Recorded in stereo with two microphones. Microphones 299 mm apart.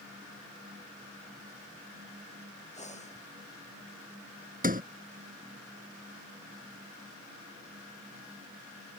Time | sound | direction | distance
2.7 | breathing | 20° left (ahead or behind) | ?
4.6 | a sliding door | 25° right (ahead or behind) | ?